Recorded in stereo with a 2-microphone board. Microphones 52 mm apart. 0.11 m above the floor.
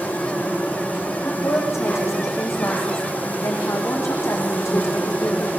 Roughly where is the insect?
Left.